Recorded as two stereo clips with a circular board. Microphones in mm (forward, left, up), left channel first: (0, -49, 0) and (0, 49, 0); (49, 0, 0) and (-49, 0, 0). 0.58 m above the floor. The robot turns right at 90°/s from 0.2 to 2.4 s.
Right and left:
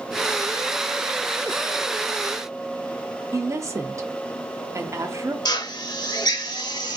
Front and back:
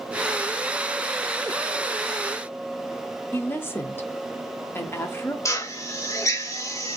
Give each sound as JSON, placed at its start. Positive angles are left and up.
{"t": 3.3, "sound": "a woman speaking", "azimuth_deg": 55, "distance_m": 0.9}
{"t": 5.5, "sound": "a drill", "azimuth_deg": -55, "distance_m": 0.8}